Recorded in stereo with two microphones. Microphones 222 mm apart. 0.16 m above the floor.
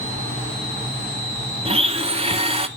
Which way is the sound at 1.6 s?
25° right (ahead or behind).